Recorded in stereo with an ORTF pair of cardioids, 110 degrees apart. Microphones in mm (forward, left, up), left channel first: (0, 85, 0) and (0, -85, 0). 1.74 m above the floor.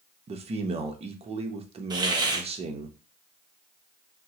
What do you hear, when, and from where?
0.3 s a man speaking: 35° right, 0.8 m
1.9 s a hiss: 25° right, 0.9 m